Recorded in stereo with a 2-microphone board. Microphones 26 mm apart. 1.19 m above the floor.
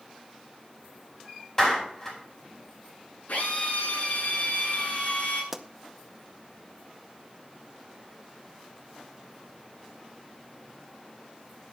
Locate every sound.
1.6 s a clap: 20° left (ahead or behind), 5 m
3.3 s a drill: 80° left, 6.5 m
5.5 s a pop: 10° right (ahead or behind), 0.7 m